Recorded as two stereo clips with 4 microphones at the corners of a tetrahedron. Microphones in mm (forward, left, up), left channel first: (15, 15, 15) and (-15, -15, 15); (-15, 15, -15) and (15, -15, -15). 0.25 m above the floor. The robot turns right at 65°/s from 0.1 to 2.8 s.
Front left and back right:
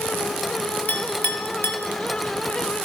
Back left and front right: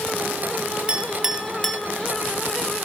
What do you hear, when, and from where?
0.9 s a clink: 5° left, 0.8 m; by 1.8 s 65° left, 0.8 m